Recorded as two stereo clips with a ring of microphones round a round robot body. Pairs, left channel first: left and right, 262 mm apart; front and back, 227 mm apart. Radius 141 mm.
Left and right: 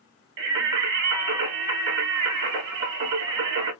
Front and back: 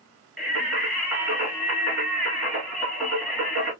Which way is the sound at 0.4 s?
90° right.